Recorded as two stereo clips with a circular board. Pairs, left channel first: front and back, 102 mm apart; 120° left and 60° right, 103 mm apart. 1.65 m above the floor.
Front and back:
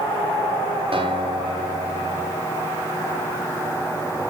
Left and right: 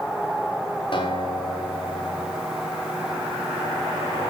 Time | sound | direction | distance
0.9 | a guitar | 150° left | 5.5 m